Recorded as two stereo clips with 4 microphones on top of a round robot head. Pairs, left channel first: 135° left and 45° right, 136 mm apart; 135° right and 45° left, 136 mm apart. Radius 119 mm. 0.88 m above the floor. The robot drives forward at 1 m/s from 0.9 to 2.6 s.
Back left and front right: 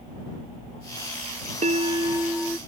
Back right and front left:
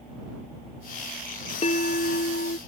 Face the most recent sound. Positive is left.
turn(degrees=-135)